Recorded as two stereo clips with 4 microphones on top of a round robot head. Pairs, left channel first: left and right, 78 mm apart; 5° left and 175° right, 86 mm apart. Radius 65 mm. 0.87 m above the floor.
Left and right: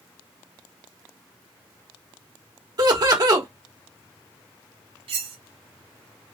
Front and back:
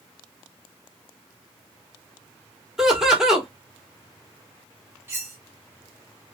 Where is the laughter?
90° right, 1.4 m.